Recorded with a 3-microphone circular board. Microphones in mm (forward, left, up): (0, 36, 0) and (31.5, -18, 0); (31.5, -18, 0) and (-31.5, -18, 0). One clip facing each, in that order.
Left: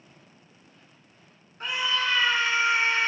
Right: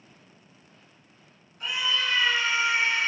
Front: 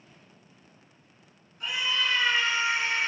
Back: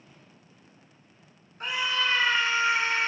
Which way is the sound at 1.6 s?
155° left.